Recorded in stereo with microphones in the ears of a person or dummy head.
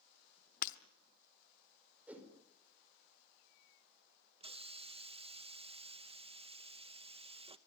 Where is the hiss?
35° right (ahead or behind), 0.7 m.